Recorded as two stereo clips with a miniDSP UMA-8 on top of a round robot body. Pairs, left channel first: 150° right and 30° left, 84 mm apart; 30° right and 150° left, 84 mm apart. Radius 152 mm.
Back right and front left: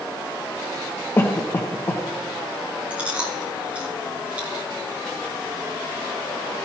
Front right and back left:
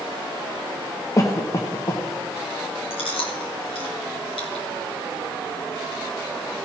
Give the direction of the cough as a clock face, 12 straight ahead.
3 o'clock.